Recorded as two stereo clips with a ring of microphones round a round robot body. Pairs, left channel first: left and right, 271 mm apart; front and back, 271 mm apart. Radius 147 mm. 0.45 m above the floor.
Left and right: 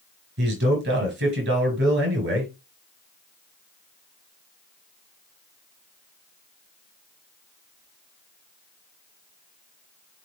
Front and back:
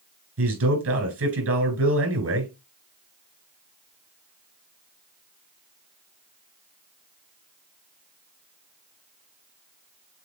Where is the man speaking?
145° right, 4 m.